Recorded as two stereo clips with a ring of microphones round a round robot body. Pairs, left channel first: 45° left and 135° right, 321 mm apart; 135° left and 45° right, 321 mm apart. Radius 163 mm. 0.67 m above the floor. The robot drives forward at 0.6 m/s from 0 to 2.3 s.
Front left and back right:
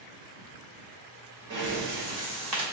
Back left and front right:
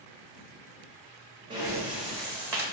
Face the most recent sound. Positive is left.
turn(degrees=-140)